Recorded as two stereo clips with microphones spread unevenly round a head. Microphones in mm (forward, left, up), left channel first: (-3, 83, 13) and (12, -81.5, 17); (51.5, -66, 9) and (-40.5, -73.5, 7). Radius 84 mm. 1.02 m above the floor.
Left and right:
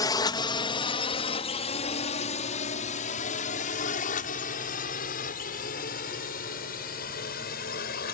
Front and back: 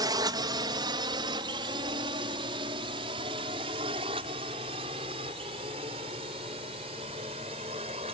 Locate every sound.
0.0 s a drone: 155° left; by 8.1 s 135° left